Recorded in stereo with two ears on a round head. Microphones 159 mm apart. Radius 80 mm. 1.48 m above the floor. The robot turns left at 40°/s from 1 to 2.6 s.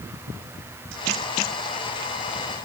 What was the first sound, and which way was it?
Only background noise.